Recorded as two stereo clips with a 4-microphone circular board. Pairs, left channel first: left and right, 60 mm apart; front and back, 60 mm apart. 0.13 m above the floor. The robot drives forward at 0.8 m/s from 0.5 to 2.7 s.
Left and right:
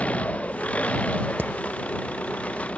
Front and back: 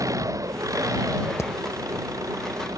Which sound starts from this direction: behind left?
An engine running, at 0.0 s.